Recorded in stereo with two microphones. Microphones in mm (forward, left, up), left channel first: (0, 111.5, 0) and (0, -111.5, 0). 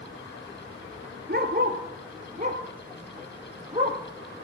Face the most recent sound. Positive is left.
turn(degrees=-25)  # may be behind; listen again after turning